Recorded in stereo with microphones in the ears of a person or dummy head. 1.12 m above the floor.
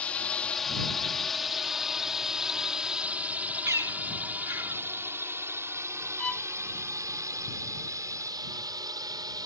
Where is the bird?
10° right (ahead or behind).